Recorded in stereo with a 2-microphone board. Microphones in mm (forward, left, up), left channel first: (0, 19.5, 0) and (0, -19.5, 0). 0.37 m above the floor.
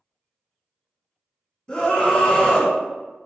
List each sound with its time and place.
1.7 s a scream: 20° left (ahead or behind), 1.9 m